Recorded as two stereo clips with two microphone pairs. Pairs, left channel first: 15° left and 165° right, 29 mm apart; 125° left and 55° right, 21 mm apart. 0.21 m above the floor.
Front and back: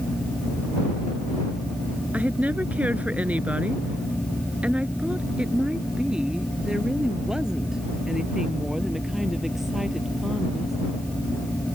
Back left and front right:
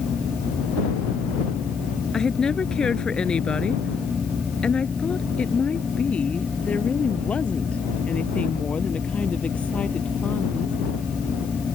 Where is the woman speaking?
Straight behind; by 10.8 s 110° left.